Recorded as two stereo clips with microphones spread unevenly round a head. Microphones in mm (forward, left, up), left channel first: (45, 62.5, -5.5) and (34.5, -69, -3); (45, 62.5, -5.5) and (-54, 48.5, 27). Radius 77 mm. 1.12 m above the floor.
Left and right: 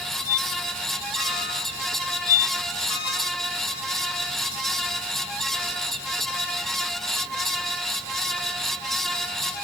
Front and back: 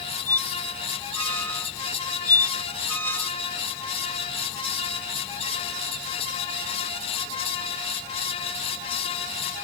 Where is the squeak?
80° left.